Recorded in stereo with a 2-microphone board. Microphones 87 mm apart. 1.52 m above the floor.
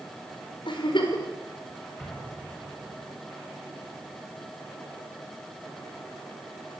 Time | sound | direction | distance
0.7 | a giggle | 70° left (ahead or behind) | 5.5 m
2.0 | an explosion | 10° left (ahead or behind) | 8 m